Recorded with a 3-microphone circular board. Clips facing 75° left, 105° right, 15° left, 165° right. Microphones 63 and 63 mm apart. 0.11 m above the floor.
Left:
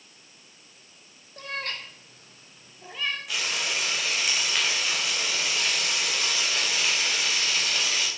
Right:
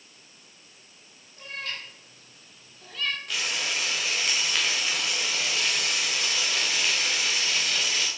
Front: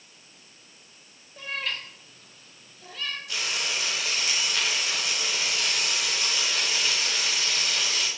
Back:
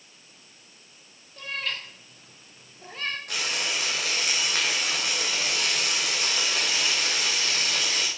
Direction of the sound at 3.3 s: 160° left.